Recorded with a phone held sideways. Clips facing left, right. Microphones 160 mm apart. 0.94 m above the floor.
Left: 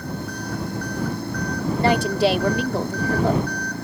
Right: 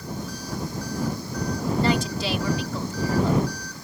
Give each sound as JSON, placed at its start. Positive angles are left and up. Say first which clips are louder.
{"t": 0.0, "sound": "an engine running", "louder": "left 4 dB", "side_deg": 60}
{"t": 1.8, "sound": "a woman speaking", "louder": "left 8 dB", "side_deg": 60}